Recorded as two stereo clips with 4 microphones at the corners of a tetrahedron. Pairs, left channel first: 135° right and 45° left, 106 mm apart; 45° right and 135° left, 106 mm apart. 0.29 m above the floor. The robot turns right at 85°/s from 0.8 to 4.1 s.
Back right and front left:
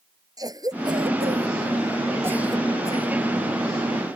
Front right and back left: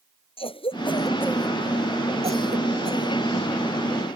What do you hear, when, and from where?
0.4 s a cough: 10° right; by 3.2 s 170° right